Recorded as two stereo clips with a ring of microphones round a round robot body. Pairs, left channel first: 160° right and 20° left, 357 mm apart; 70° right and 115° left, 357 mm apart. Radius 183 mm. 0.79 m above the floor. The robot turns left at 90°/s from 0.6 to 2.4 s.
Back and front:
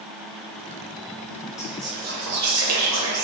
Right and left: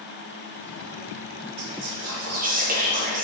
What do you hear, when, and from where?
1.6 s whispering: 125° left, 0.7 m; by 3.2 s 50° left, 0.7 m